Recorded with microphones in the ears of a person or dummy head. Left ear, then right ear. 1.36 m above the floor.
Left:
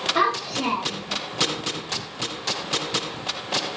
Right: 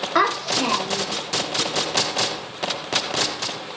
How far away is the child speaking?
About 0.6 m.